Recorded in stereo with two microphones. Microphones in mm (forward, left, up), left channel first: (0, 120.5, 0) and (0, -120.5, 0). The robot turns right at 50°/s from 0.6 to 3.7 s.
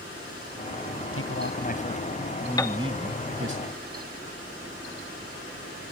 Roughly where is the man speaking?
Behind left.